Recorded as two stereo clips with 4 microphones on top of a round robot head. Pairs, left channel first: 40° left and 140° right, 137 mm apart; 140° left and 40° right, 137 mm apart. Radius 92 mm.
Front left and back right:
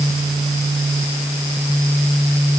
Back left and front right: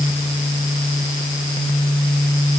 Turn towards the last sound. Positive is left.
No sound to turn to.